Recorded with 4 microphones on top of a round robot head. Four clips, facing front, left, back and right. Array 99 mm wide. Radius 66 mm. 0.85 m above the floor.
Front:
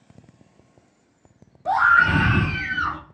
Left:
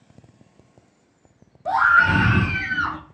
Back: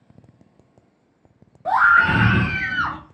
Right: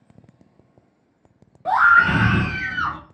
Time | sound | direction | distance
1.6 | a scream | 130° right | 1.1 m